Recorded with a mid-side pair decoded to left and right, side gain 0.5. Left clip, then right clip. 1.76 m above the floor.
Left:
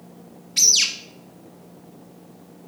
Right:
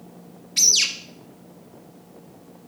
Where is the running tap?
I don't hear a running tap.